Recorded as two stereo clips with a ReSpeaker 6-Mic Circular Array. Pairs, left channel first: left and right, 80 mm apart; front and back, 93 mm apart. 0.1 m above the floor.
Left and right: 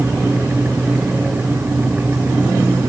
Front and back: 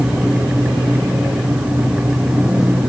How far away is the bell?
I don't hear a bell.